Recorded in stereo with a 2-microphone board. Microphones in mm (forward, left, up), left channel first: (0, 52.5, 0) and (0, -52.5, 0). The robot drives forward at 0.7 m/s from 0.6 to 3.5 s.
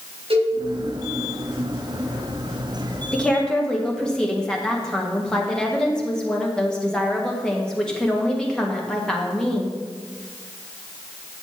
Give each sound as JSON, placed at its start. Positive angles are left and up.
{"t": 0.3, "sound": "a cowbell", "side_deg": -65, "distance_m": 4.0}
{"t": 3.1, "sound": "a woman speaking", "side_deg": 10, "distance_m": 1.5}